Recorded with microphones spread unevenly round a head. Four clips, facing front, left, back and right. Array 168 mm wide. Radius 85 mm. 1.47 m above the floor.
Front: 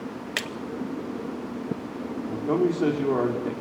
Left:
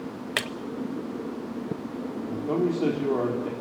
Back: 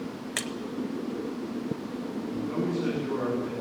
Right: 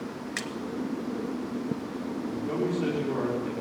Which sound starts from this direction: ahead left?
A man speaking, at 2.3 s.